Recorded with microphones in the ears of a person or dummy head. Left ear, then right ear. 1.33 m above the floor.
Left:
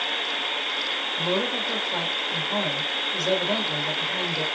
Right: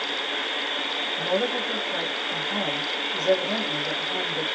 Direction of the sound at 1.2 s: 10° left (ahead or behind).